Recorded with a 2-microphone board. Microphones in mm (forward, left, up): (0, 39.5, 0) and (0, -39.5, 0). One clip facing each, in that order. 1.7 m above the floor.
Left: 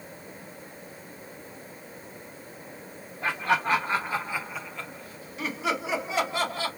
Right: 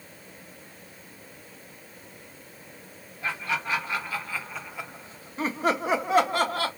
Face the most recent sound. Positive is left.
turn(degrees=-55)  # may be behind; listen again after turning